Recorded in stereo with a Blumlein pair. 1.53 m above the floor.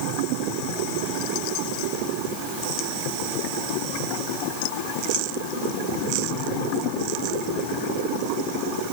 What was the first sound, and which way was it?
Only background noise.